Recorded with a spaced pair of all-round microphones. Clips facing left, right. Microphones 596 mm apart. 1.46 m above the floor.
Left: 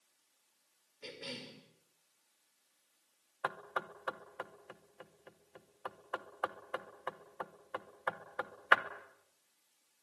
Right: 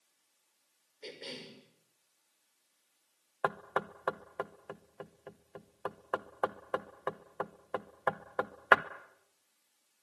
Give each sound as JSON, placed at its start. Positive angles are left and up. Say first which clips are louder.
{"t": 1.0, "sound": "a cough", "louder": "right 1 dB", "side_deg": 35, "distance_m": 5.5}
{"t": 3.4, "sound": "knocking", "louder": "right 7 dB", "side_deg": -70, "distance_m": 1.0}